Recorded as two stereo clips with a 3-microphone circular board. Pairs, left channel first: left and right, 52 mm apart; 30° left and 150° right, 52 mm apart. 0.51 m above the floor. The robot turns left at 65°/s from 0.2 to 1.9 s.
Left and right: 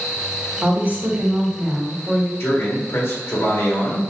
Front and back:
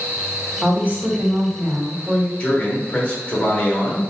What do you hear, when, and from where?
0.6 s a woman speaking: 95° right, 1.5 m; by 2.3 s straight behind, 1.5 m
2.4 s a man speaking: 85° left, 1.4 m